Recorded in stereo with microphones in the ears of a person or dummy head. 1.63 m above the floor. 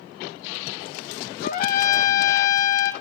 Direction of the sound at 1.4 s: 55° left (ahead or behind).